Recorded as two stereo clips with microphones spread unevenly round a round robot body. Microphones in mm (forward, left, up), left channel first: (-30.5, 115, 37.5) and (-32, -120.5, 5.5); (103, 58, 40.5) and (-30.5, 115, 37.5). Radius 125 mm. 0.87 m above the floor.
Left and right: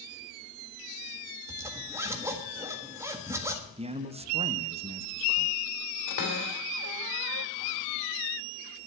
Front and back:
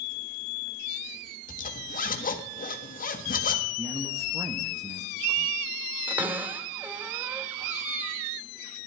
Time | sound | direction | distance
1.5 | a zipper | 15° right | 1.4 m
3.8 | a man speaking | 140° right | 1.0 m
6.1 | a cupboard door | 80° left | 3 m